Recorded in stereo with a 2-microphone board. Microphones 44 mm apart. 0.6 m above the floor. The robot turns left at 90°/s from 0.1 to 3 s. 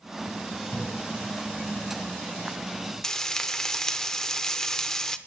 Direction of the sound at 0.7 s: 45° left (ahead or behind).